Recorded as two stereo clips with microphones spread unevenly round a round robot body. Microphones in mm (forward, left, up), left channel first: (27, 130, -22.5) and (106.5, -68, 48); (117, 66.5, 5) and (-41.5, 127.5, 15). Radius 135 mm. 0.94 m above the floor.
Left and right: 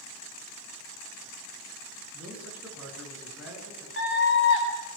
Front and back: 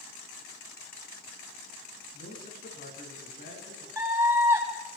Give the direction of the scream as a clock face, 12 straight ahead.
9 o'clock.